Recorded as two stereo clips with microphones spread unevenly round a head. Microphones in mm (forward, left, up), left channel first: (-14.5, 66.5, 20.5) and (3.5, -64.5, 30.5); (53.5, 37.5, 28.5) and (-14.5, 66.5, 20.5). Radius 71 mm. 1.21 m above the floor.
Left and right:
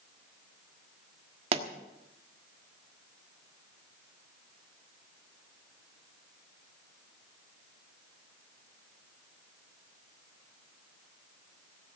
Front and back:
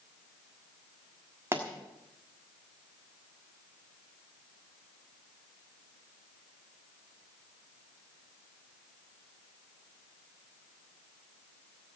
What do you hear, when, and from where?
1.5 s a pop: 130° right, 1.4 m